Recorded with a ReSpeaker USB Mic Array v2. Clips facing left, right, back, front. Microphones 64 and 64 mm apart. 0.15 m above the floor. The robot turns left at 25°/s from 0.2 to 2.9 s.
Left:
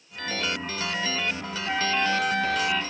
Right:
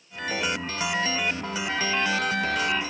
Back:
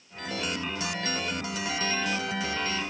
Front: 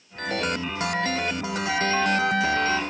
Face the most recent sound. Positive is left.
turn(degrees=-10)